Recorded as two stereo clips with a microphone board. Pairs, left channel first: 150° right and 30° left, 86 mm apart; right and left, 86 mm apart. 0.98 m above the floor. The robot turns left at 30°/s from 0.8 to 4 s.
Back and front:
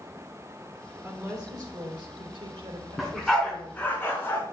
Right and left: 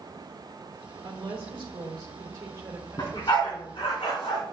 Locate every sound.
1.0 s a woman speaking: 85° left, 3 m; by 3.8 s 5° left, 3 m
3.0 s a dog barking: 55° right, 3 m; by 4.4 s 85° right, 3 m